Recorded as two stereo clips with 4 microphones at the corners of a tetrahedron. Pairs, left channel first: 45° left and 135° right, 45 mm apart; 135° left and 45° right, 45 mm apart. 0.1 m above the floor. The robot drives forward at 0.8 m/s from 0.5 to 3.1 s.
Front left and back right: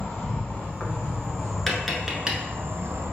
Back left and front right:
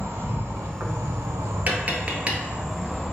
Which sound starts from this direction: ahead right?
Tapping, at 1.7 s.